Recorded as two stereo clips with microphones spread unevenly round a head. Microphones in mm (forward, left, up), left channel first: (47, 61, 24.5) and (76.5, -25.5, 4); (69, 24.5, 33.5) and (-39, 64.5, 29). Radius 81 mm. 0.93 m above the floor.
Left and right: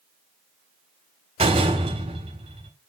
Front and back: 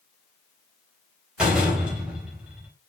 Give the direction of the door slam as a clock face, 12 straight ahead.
4 o'clock.